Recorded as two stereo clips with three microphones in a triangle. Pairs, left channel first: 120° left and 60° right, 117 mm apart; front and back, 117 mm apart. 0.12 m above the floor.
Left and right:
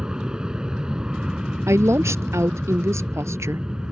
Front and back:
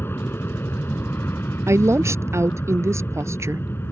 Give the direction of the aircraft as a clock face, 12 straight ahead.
12 o'clock.